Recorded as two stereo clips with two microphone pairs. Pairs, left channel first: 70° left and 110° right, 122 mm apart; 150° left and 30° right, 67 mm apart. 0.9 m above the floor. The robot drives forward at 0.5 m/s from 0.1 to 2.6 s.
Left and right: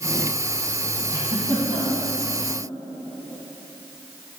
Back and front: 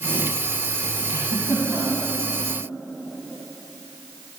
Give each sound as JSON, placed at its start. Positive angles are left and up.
{"t": 1.1, "sound": "a giggle", "azimuth_deg": -60, "distance_m": 1.7}